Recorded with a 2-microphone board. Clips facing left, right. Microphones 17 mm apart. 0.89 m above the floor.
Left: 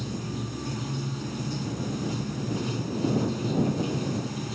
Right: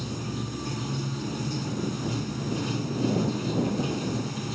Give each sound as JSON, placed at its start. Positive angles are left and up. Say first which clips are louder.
{"t": 0.0, "sound": "running water", "louder": "even", "side_deg": -10}